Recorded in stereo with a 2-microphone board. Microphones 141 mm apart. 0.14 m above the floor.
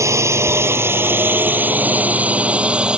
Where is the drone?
20° right (ahead or behind); by 3.0 s 5° right (ahead or behind).